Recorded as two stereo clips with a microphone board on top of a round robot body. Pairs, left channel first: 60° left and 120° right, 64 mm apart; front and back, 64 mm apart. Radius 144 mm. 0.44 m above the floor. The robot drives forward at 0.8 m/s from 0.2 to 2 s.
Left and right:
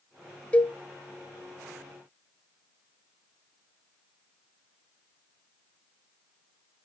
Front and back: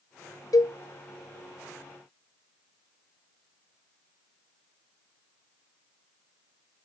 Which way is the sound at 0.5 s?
5° right.